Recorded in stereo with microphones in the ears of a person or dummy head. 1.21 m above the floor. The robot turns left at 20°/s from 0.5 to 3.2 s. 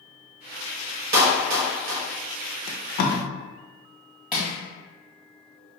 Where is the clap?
60° right (ahead or behind), 1.1 m; by 2.0 s 75° right (ahead or behind), 1.1 m.